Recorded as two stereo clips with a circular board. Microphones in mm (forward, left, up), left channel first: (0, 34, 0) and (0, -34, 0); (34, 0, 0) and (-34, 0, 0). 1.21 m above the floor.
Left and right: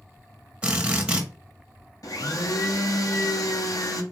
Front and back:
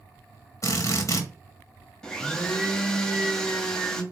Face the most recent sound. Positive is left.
turn(degrees=75)